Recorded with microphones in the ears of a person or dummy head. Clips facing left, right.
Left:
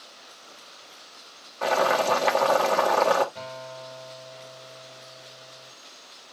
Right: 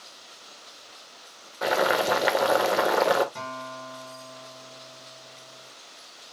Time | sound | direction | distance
1.6 | boiling | 10° right (ahead or behind) | 1.3 m
3.4 | a guitar | 70° right (ahead or behind) | 5.5 m